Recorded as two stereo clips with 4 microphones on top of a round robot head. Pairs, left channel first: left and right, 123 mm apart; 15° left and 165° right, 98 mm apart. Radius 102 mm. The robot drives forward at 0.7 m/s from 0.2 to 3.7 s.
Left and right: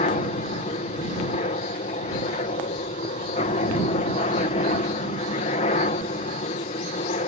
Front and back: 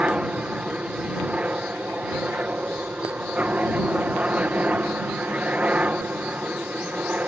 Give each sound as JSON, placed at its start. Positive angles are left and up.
{"t": 0.0, "sound": "a helicopter", "azimuth_deg": 115}